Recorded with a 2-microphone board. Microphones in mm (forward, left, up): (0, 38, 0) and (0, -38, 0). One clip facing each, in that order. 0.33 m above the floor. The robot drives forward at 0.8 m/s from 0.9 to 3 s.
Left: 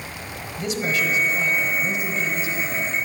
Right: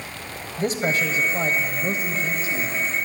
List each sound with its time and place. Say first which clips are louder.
0.6 s a man speaking: right 2 dB; 40° right (ahead or behind), 1.4 m; by 2.8 s 30° right (ahead or behind), 1.5 m